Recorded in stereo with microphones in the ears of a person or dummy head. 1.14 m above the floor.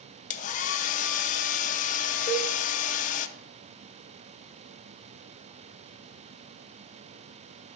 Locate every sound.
0.3 s a hair dryer: 35° left (ahead or behind), 0.6 m
2.3 s a cowbell: 30° left (ahead or behind), 2.5 m